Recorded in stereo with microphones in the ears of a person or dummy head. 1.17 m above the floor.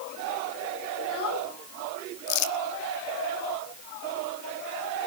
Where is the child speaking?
80° left, 8 m.